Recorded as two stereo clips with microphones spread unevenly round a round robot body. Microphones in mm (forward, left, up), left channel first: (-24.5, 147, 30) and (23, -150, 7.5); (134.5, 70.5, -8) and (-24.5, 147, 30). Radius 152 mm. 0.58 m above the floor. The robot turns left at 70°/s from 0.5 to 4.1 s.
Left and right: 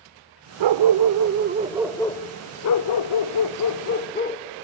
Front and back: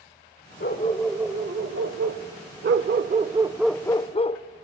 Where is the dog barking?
80° right, 0.7 m; by 4.4 s 35° left, 0.7 m.